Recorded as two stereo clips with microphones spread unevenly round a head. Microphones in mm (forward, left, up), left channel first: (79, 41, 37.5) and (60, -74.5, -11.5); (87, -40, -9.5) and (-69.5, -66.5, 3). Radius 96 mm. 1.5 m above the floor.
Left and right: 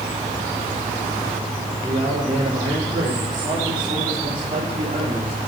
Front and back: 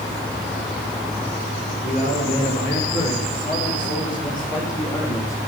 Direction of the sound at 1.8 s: 20° right.